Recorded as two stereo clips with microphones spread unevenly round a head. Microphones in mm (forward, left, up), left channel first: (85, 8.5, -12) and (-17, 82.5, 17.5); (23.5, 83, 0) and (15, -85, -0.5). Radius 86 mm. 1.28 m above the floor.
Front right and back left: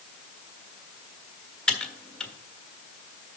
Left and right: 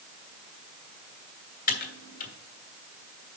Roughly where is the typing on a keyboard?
Ahead left.